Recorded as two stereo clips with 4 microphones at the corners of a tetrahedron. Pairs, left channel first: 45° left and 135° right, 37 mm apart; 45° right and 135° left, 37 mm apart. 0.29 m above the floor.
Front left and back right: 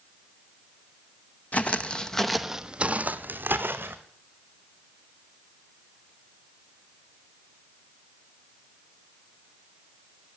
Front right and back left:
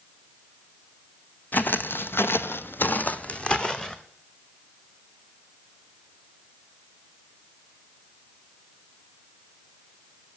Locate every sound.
1.5 s footsteps: 5° right, 1.0 m; by 4.0 s 120° right, 1.3 m